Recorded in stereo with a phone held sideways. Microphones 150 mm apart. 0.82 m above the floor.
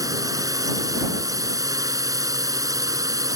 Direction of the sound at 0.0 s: 25° right (ahead or behind).